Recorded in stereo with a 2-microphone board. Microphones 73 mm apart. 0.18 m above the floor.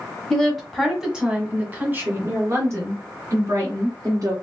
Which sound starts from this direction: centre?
A woman speaking, at 0.3 s.